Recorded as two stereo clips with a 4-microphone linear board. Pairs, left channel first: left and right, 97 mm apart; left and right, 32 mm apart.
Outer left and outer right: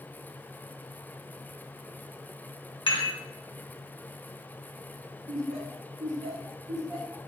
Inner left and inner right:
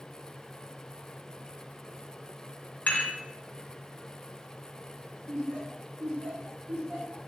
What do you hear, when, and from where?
2.9 s dishes clattering: 65° left (ahead or behind), 0.8 m
5.3 s laughter: 75° right (ahead or behind), 1.7 m